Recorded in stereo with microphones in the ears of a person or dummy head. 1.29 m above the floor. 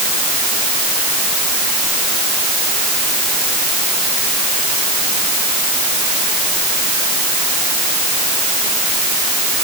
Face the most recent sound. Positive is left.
No sound to turn to.